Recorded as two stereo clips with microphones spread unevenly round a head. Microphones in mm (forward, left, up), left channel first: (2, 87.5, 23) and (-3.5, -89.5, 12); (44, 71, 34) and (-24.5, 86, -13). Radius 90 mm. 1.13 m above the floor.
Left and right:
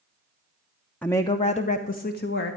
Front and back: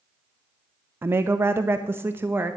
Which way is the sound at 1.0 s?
175° left.